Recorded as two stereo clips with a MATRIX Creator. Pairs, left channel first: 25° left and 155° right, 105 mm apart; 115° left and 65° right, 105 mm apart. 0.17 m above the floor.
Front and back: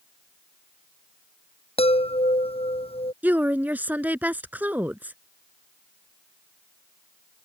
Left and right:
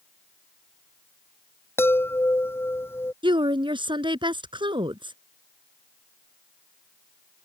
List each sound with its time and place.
1.8 s a chime: 45° left
3.2 s a woman speaking: 85° right